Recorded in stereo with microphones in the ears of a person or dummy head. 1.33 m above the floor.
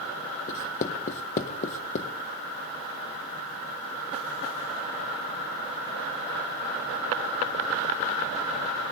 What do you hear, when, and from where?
0.5 s writing: 45° left (ahead or behind), 0.7 m